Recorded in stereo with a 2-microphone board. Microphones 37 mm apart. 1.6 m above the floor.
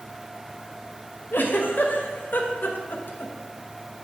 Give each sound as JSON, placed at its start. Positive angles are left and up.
{"t": 1.3, "sound": "a giggle", "side_deg": 60, "distance_m": 0.9}